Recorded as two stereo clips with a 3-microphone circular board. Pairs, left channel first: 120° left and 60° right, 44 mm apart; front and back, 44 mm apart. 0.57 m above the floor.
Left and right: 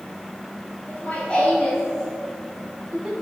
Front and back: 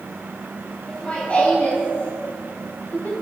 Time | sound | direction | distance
0.9 | laughter | 70° left | 3 m